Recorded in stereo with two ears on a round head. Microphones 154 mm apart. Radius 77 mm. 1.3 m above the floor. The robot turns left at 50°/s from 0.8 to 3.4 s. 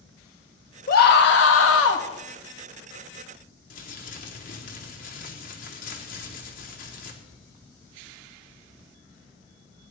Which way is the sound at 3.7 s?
50° left (ahead or behind).